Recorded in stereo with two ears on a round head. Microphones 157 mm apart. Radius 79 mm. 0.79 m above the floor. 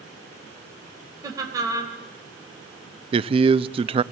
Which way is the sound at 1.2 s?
20° right (ahead or behind).